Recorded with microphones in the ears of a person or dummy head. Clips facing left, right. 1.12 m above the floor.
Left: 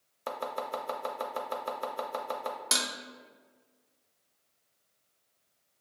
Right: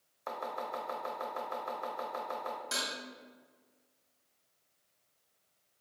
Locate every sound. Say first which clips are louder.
0.3 s chopping: left 4 dB; 55° left (ahead or behind), 0.6 m
2.7 s dishes clattering: left 3 dB; 80° left, 0.6 m